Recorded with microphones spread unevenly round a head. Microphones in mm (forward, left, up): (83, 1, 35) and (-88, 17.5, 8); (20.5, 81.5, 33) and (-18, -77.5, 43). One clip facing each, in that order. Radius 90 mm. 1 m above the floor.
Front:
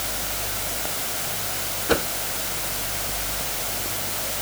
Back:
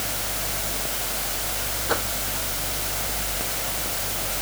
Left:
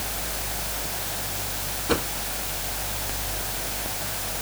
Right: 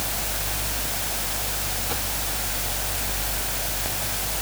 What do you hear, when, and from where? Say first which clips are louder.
1.9 s a whoosh: front 6 dB, left 11 dB; 50° left